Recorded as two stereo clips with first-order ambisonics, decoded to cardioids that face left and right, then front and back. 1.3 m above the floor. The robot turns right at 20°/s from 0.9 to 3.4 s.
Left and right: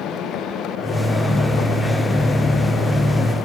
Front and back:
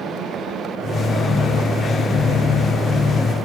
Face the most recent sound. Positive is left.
No sound to turn to.